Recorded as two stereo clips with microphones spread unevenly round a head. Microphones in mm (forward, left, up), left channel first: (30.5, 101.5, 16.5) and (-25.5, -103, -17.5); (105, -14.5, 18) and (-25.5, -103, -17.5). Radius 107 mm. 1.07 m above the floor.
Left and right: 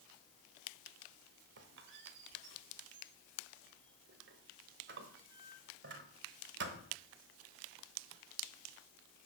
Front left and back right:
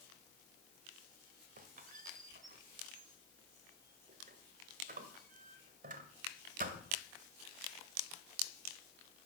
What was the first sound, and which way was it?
A squeak, 125° right.